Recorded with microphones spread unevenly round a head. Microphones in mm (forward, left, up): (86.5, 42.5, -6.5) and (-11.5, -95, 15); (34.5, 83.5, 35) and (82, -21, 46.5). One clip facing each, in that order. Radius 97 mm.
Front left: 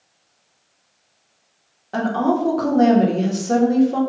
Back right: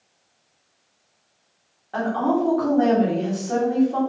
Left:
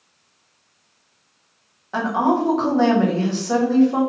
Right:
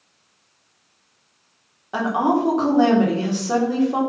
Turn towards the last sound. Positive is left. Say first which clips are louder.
# front left 2 dB, even
turn(degrees=10)